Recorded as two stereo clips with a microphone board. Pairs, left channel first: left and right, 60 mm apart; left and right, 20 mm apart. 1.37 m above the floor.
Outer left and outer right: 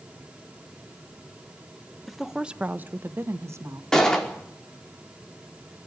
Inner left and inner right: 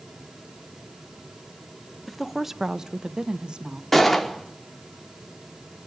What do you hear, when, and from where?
2.1 s a woman speaking: centre (ahead or behind), 0.9 m; by 3.8 s 55° right (ahead or behind), 1.6 m
3.9 s a gunshot: 10° left (ahead or behind), 4.5 m